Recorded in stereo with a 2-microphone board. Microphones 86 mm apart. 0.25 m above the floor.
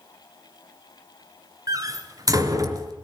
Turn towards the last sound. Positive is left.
turn(degrees=-40)  # may be behind; listen again after turning